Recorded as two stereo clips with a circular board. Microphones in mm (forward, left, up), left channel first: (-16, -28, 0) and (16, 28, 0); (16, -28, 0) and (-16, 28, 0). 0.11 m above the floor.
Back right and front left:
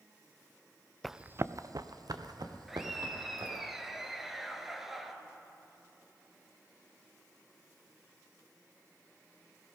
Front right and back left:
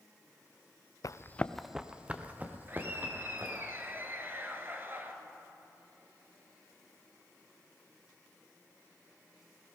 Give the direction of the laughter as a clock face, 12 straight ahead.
7 o'clock.